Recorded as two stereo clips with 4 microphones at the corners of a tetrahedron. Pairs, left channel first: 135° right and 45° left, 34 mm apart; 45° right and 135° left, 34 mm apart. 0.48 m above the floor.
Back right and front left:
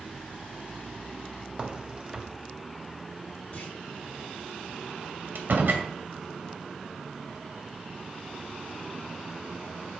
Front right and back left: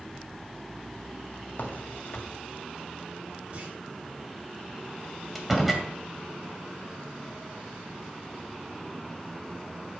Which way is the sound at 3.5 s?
175° left.